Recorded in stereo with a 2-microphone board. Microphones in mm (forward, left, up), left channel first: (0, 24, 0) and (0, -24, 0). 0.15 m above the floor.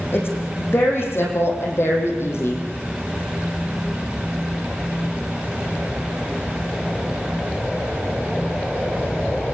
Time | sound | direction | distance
0.1 | a woman speaking | 50° left (ahead or behind) | 8.5 m